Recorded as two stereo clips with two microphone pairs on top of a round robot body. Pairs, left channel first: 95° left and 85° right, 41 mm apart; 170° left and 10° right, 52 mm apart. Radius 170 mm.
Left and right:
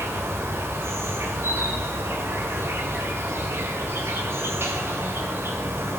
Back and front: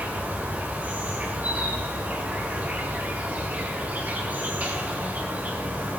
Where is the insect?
70° right, 2.5 m.